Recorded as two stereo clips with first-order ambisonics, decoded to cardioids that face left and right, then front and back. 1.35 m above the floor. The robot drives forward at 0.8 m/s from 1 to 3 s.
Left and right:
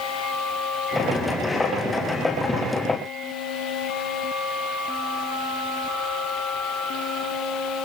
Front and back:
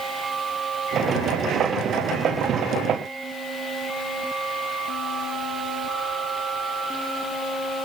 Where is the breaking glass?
No breaking glass in this recording.